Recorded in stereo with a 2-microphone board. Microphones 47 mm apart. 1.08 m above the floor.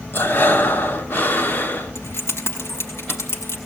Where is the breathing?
50° left (ahead or behind), 1.4 m.